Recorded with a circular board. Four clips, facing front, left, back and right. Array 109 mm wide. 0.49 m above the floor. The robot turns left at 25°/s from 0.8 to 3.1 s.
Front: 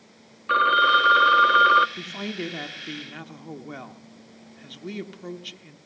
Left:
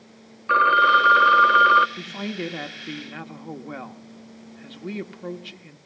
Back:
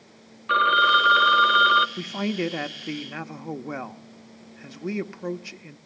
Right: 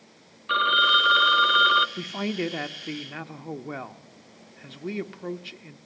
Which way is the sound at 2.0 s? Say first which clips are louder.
Right 2 dB, back 5 dB; 145° right.